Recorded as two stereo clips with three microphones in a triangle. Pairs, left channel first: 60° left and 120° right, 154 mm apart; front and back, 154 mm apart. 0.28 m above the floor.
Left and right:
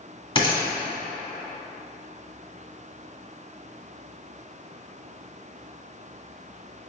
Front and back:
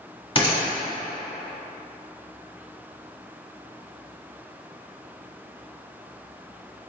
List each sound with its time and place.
0.3 s a gunshot: 30° left, 1.3 m